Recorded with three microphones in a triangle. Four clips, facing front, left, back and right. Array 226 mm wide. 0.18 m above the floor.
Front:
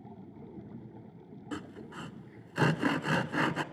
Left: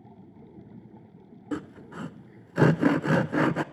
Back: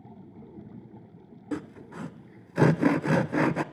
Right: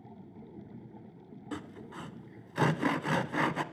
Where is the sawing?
130° left, 0.7 m.